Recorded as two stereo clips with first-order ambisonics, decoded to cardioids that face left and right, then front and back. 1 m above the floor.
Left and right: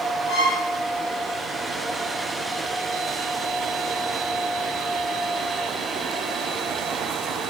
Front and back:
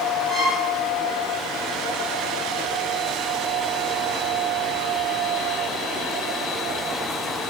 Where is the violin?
100° left, 1.8 m.